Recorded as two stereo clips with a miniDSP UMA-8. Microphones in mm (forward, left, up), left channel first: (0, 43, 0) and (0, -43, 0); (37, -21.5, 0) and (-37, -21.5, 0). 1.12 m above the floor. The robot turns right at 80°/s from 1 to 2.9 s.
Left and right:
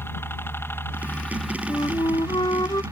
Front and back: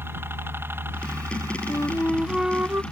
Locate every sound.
0.0 s a helicopter: 140° left; by 2.9 s 70° right
1.7 s a flute: 40° left; by 2.8 s 130° left